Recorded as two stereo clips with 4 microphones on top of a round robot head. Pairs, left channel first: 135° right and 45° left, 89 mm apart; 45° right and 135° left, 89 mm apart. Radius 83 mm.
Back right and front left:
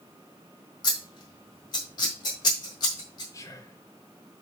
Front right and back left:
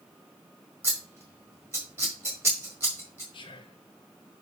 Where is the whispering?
75° right, 0.6 m.